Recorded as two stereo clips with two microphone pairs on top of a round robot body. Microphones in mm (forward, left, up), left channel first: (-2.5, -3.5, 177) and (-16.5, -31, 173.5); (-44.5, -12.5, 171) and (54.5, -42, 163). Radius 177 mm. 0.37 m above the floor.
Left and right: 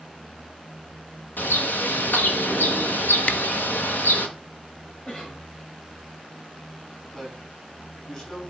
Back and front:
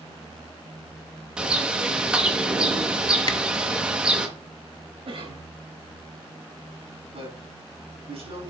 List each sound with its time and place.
1.4 s a bird: 65° left, 1.4 m
3.3 s a camera shutter: 115° left, 0.9 m
5.0 s a cough: straight ahead, 4.5 m
7.1 s a man speaking: 5° right, 5 m